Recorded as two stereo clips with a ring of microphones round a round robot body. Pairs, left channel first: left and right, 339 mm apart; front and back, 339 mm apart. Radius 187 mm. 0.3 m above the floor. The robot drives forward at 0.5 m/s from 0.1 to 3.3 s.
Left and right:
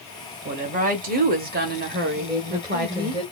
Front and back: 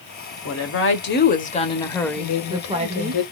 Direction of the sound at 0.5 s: 25° right.